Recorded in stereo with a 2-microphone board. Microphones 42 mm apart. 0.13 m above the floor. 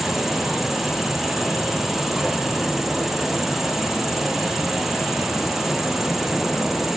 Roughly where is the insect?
Centre.